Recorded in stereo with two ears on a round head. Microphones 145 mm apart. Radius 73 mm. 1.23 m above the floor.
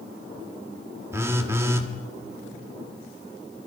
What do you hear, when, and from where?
1.1 s a phone buzzing: 15° right (ahead or behind), 1.5 m